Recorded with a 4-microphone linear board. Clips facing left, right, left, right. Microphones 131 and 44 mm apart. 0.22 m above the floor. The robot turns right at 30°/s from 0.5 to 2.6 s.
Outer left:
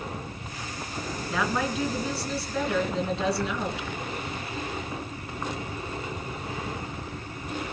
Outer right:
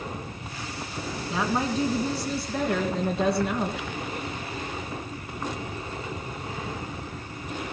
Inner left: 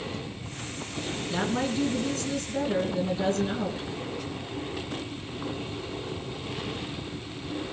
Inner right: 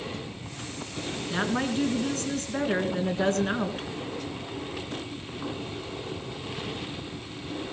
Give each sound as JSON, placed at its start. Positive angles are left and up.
{"t": 1.3, "sound": "a woman speaking", "azimuth_deg": -150, "distance_m": 3.0}